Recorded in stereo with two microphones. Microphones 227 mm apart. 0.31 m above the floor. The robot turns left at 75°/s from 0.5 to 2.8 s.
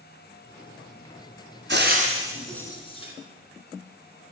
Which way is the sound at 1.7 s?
55° right (ahead or behind).